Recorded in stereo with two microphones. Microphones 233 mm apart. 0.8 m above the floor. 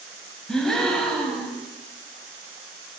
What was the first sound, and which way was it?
A gasp, 5° left (ahead or behind).